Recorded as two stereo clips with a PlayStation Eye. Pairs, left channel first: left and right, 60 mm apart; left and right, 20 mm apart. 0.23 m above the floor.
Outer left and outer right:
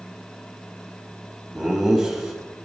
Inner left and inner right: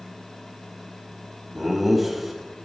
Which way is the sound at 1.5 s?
15° right (ahead or behind).